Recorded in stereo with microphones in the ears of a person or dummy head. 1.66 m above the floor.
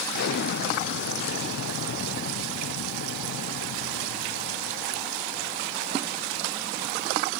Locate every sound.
0.1 s an explosion: 65° left (ahead or behind), 0.6 m